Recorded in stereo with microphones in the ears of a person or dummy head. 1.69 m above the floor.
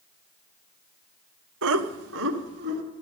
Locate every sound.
1.6 s laughter: 65° right (ahead or behind), 0.7 m; by 2.8 s 60° right (ahead or behind), 1.8 m